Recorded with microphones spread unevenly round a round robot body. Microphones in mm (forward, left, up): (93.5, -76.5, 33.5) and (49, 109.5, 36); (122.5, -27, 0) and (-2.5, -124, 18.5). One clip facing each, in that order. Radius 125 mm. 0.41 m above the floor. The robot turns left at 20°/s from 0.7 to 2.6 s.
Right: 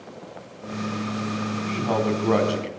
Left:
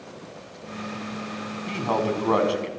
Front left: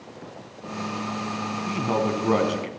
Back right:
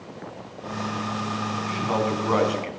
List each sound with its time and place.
1.7 s a man speaking: 5° left, 4.5 m; by 2.7 s 10° right, 4.5 m